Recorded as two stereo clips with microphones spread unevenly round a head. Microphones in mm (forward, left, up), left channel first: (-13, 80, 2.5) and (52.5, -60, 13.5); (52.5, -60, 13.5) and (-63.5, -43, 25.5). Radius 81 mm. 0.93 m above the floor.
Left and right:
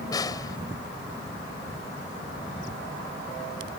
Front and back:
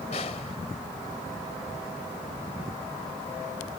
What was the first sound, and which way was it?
A snare drum, 45° left.